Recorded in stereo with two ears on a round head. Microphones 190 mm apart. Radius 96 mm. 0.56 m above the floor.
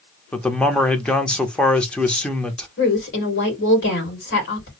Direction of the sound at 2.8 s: 55° left (ahead or behind).